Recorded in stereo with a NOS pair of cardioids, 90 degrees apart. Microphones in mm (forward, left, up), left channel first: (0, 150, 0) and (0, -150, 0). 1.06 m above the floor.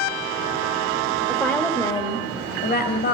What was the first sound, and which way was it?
A woman speaking, straight ahead.